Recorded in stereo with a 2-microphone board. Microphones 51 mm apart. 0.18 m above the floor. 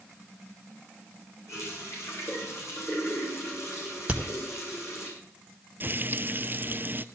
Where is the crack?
25° right (ahead or behind), 2 m.